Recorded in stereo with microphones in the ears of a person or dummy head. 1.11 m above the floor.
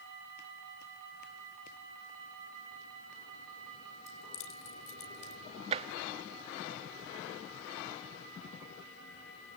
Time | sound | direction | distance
4.1 | keys jangling | 45° left (ahead or behind) | 3.5 m
5.7 | tapping | 35° right (ahead or behind) | 0.8 m